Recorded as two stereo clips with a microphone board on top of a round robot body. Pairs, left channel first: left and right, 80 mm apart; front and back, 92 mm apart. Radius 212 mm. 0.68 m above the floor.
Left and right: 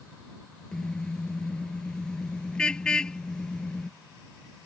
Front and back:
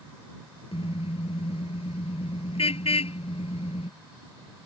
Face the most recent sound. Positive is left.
turn(degrees=10)